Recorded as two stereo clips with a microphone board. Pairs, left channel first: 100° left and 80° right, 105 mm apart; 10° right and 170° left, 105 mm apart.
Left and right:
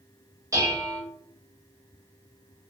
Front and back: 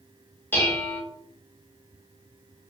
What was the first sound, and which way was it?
Dishes clattering, 65° right.